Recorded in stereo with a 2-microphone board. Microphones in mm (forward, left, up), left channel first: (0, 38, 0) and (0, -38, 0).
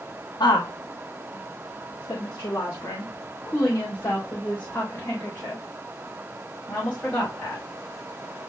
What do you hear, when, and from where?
0.4 s a woman speaking: 75° left (ahead or behind), 1.4 m; by 7.6 s 15° left (ahead or behind), 5 m